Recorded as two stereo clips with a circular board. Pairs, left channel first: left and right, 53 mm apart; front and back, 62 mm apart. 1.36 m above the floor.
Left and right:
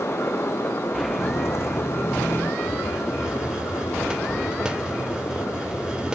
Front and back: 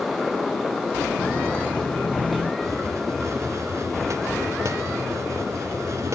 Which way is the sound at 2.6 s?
165° right.